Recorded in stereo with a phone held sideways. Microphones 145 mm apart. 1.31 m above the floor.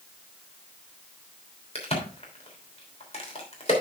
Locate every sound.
1.8 s a crack: 45° left (ahead or behind), 3 m